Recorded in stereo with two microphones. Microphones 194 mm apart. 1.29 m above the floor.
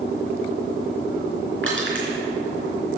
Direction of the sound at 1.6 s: 75° right (ahead or behind).